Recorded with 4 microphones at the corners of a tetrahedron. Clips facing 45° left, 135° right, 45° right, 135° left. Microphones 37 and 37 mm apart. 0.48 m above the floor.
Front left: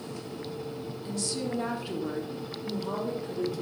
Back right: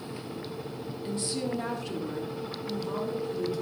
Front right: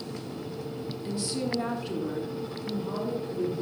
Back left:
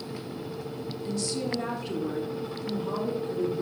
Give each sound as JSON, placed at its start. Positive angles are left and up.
{"t": 1.1, "sound": "a woman speaking", "azimuth_deg": -105, "distance_m": 1.3}